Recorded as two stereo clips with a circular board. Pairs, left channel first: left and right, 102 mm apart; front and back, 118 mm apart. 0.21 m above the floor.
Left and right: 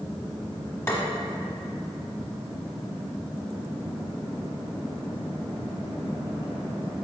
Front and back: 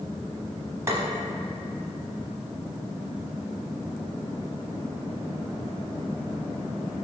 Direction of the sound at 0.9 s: 135° left.